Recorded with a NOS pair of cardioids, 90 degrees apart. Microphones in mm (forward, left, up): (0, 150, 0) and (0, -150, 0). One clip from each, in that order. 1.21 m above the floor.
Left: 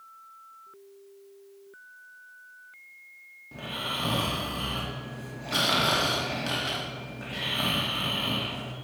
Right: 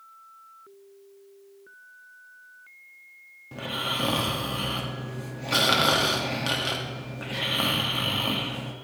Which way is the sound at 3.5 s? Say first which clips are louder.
Right 3 dB; 35° right.